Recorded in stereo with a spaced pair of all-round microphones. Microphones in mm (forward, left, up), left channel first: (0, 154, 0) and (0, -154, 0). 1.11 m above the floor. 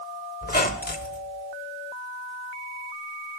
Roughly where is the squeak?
Left.